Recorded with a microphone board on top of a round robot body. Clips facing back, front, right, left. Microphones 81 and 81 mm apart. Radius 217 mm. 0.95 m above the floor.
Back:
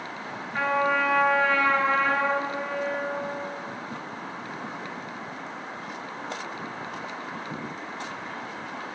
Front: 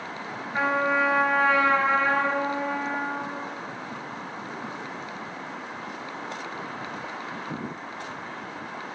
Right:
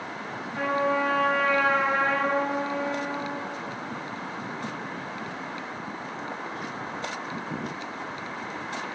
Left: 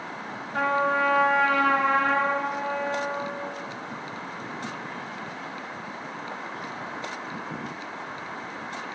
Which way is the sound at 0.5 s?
75° left.